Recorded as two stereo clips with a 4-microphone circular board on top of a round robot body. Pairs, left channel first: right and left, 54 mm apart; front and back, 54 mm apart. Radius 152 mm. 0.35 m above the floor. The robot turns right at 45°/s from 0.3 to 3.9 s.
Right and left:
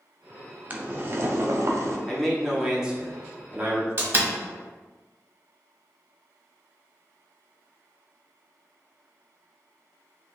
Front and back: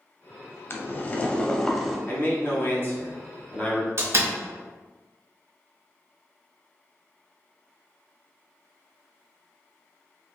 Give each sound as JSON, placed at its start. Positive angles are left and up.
{"t": 0.7, "sound": "boiling", "azimuth_deg": 35, "distance_m": 0.7}
{"t": 2.1, "sound": "a man speaking", "azimuth_deg": -10, "distance_m": 1.3}
{"t": 4.0, "sound": "a door slam", "azimuth_deg": 135, "distance_m": 1.2}